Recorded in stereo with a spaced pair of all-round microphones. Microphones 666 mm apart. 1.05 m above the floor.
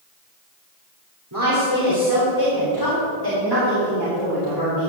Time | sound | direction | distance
1.3 | a woman speaking | 30° right (ahead or behind) | 4 m